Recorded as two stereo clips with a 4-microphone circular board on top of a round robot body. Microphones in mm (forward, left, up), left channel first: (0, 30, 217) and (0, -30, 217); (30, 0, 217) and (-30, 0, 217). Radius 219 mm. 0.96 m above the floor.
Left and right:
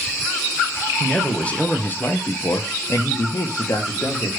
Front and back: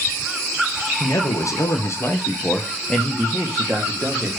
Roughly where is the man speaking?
Ahead.